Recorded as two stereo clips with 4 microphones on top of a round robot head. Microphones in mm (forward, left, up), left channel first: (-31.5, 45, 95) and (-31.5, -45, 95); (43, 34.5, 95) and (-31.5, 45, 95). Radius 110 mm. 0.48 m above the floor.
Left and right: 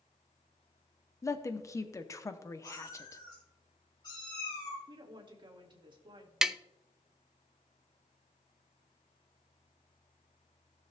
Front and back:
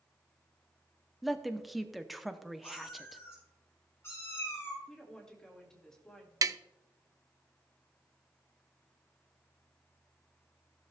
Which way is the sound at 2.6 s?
45° left.